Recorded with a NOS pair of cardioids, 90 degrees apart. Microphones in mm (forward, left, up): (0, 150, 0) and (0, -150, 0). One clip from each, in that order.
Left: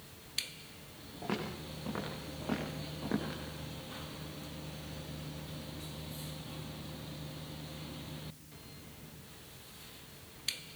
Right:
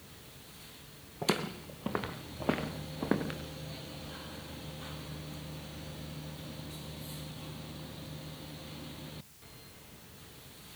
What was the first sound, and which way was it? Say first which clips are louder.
Footsteps: right 6 dB; 65° right.